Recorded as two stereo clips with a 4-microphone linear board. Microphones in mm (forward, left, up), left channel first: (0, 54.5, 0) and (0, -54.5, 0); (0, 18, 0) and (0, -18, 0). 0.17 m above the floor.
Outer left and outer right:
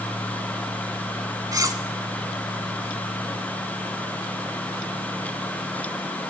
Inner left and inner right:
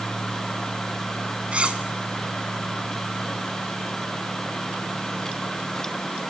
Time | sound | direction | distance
1.5 | cutlery clinking | 35° right (ahead or behind) | 0.9 m